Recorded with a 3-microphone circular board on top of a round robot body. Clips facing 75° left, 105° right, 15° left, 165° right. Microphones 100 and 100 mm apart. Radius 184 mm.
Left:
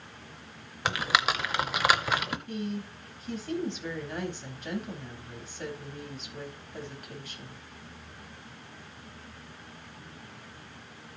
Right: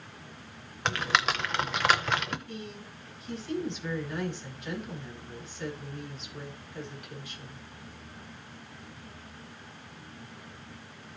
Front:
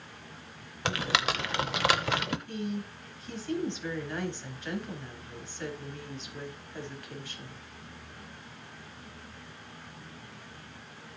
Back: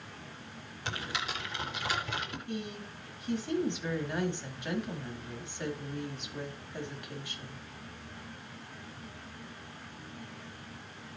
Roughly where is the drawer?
I don't hear a drawer.